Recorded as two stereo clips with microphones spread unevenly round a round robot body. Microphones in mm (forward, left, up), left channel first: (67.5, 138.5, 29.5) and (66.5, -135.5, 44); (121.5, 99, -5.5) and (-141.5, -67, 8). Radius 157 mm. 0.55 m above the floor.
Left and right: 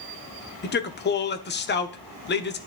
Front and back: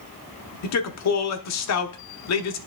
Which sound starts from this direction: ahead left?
A man speaking, at 0.6 s.